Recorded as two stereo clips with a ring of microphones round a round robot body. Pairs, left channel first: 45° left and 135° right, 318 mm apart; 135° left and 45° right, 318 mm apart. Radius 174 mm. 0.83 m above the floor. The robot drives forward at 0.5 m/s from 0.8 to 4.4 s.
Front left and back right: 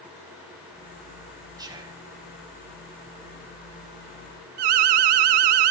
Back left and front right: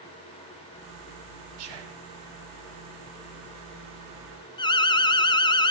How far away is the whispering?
About 4.5 m.